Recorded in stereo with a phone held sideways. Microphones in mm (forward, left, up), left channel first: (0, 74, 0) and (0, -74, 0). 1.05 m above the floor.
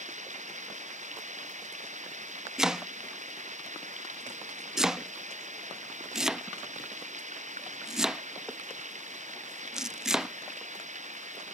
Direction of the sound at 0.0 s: 55° right (ahead or behind).